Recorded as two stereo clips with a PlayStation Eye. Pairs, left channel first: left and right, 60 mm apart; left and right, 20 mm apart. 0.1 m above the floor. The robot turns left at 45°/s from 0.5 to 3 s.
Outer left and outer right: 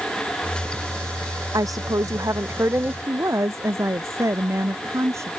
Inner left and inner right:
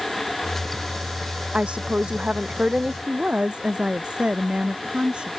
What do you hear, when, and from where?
1.5 s a woman speaking: 80° right; by 3.0 s 145° right
3.1 s a woman speaking: 55° right (ahead or behind)